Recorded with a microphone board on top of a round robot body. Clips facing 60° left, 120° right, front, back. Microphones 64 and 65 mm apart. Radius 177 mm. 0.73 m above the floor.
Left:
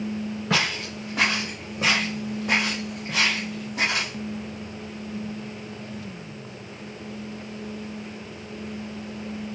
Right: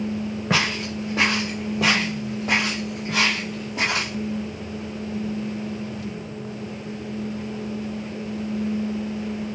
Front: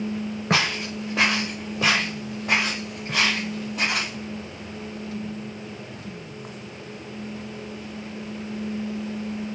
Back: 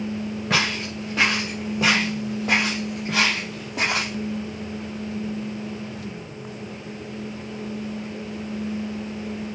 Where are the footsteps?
55° right, 1.1 m; by 4.1 s straight behind, 1.7 m.